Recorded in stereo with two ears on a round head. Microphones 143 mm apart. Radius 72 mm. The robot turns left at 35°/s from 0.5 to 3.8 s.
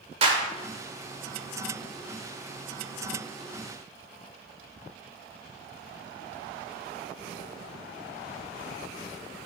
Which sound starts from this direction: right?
A clap, at 0.2 s.